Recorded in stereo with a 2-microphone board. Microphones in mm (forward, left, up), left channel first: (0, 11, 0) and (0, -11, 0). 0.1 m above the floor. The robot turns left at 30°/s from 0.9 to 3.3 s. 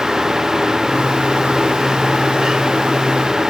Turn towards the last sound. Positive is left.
No sound to turn to.